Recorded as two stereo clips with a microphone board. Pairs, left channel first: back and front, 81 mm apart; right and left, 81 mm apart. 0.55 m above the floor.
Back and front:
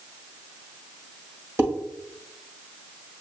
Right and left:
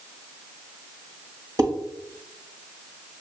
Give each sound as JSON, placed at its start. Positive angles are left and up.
{"t": 1.6, "sound": "dishes clattering", "azimuth_deg": 50, "distance_m": 1.6}